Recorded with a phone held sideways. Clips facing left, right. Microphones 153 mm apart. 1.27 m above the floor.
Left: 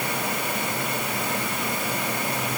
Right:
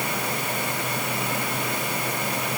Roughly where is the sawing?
I don't hear sawing.